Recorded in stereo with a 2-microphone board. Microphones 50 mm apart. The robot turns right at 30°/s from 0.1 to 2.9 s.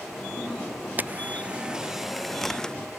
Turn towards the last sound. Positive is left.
turn(degrees=20)